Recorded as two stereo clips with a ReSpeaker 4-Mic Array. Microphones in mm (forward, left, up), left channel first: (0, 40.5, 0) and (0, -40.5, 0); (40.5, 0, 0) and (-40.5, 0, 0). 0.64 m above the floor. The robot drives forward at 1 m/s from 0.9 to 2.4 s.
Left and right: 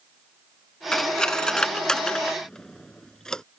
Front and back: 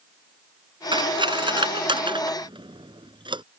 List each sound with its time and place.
0.9 s cutlery clinking: 170° left; by 3.4 s 175° left